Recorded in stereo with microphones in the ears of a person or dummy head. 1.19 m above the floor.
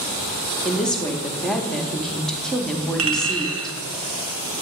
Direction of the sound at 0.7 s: Centre (ahead or behind).